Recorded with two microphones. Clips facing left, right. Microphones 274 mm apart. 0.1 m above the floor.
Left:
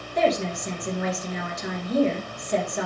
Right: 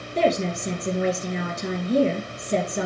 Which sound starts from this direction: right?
A woman speaking, at 0.1 s.